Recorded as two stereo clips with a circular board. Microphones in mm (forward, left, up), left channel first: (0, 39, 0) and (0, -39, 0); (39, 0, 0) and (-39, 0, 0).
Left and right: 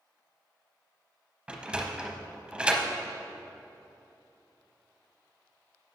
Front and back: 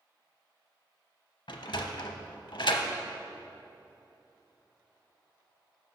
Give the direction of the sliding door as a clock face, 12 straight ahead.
1 o'clock.